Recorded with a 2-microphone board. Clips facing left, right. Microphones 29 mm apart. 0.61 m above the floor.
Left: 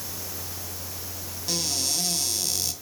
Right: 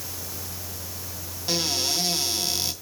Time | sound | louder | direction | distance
1.5 | a cupboard door | right 3 dB | 25° right (ahead or behind) | 2.5 m